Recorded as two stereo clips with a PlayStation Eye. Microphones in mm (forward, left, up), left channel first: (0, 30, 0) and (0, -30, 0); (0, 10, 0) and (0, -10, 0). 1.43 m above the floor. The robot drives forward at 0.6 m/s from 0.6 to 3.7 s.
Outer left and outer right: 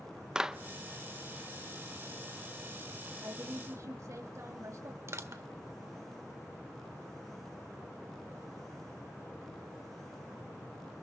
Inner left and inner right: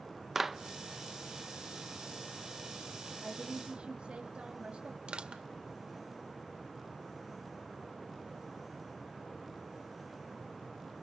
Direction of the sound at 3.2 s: 65° right (ahead or behind).